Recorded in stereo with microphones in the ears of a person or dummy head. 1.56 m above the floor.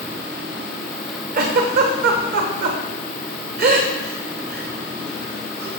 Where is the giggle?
45° right (ahead or behind), 1.1 m.